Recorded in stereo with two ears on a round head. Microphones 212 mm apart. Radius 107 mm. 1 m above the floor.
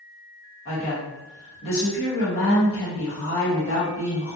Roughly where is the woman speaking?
Left.